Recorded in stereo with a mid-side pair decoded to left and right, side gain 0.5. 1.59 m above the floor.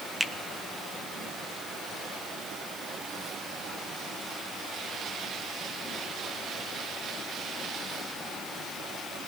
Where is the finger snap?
Straight ahead, 0.8 m.